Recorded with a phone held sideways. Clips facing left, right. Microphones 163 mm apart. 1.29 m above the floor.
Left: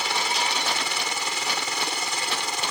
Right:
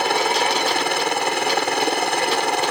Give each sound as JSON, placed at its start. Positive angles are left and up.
{"t": 0.0, "sound": "a helicopter", "side_deg": -60}